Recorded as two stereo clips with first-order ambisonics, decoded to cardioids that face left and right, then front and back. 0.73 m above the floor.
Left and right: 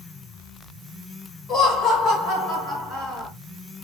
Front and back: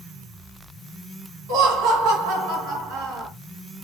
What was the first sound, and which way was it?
Laughter, 150° left.